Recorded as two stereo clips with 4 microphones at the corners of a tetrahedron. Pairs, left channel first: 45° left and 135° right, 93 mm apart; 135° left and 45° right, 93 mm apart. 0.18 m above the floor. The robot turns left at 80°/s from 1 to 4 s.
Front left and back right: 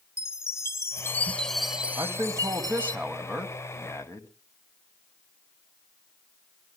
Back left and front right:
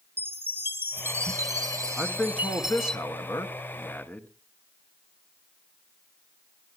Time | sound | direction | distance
0.2 | a chime | 5° left | 0.8 m
2.0 | a man speaking | 120° right | 1.6 m